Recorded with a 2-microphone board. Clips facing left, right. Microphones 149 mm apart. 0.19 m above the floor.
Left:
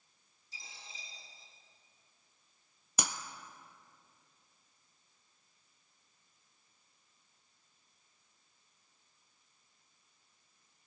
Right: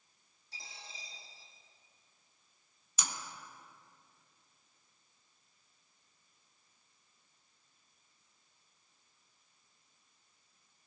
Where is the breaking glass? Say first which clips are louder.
Left 4 dB; 85° left, 0.8 m.